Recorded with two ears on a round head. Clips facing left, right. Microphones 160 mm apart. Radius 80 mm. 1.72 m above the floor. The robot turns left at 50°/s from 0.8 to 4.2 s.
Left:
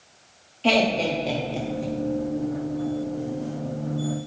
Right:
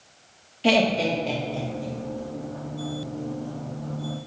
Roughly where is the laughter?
Centre.